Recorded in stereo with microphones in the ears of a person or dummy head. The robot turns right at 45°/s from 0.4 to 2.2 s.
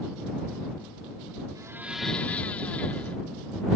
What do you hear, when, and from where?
1.6 s a blender: 25° right (ahead or behind); by 3.2 s 5° left (ahead or behind)